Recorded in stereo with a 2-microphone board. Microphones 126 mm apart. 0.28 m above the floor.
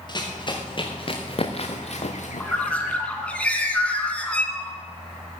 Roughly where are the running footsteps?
Left.